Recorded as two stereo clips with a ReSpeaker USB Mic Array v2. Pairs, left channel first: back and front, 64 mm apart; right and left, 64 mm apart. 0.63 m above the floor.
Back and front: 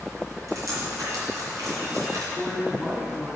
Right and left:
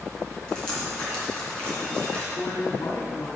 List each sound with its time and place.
0.5 s dripping: 20° right, 3 m
2.3 s a man speaking: 80° right, 2.5 m